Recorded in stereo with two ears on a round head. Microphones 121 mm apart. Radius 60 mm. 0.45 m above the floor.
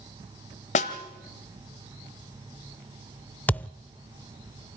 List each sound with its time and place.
0.8 s a snare drum: 55° left (ahead or behind), 1.4 m
3.5 s a thud: 10° left (ahead or behind), 0.5 m